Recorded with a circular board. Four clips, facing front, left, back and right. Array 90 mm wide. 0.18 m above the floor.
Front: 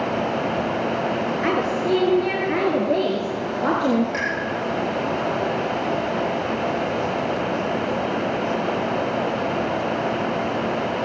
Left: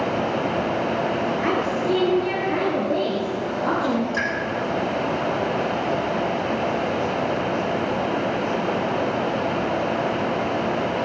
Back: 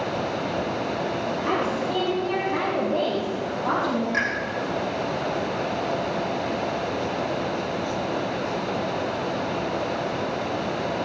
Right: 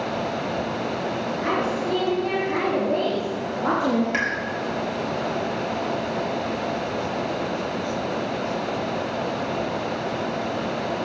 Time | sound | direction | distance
1.4 | a woman speaking | 25° left | 4 m
4.1 | a pop | 90° right | 5 m